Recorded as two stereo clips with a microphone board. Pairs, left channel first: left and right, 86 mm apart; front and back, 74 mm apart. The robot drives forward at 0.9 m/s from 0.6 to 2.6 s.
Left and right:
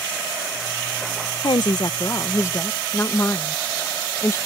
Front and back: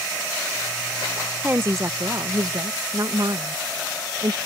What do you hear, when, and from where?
1.4 s a woman speaking: 110° left; by 4.4 s 145° left